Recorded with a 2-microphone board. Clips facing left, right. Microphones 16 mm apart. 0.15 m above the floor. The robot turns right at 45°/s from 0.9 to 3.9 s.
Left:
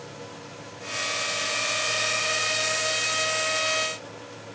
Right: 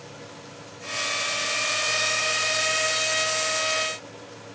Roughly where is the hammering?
No hammering in this recording.